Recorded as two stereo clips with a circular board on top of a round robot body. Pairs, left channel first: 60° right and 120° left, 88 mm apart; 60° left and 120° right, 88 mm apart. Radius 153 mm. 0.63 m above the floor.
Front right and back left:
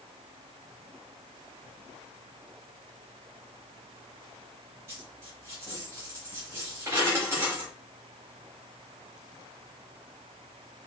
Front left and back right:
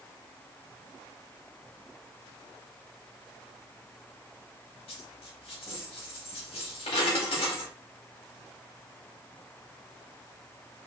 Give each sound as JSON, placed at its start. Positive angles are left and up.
{"t": 4.9, "sound": "a dropped coin", "azimuth_deg": 60, "distance_m": 0.9}